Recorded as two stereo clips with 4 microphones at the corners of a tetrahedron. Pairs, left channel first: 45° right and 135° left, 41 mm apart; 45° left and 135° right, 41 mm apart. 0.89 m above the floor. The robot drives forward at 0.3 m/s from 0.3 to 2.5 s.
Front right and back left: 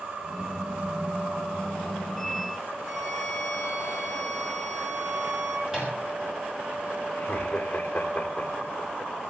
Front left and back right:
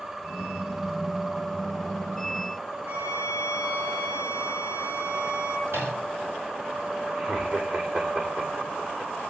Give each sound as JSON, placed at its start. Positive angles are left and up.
{"t": 2.8, "sound": "a violin", "azimuth_deg": -160, "distance_m": 8.5}
{"t": 5.7, "sound": "a microwave", "azimuth_deg": -145, "distance_m": 6.0}
{"t": 7.2, "sound": "laughter", "azimuth_deg": -100, "distance_m": 3.0}